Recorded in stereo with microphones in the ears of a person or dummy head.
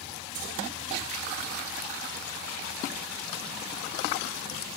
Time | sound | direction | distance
0.3 | keys jangling | 70° right (ahead or behind) | 1.5 m